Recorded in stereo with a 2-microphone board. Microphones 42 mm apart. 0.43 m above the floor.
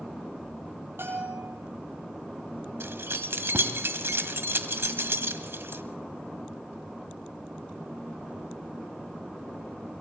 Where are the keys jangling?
70° right (ahead or behind), 1.7 m.